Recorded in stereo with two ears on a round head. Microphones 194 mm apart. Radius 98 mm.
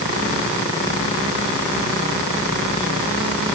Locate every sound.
Only background noise.